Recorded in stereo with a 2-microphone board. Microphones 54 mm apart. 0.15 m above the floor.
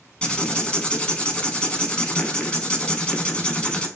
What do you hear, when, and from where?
0.2 s writing: 20° left (ahead or behind), 0.6 m